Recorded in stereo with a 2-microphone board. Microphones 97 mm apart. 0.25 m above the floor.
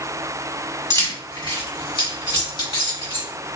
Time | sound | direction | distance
0.9 | keys jangling | 40° left (ahead or behind) | 1.5 m